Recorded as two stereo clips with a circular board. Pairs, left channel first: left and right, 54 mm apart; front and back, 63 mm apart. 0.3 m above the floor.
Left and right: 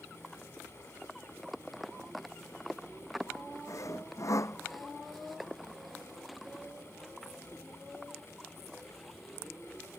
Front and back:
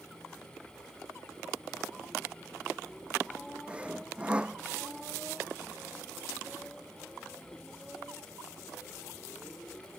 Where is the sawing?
110° left.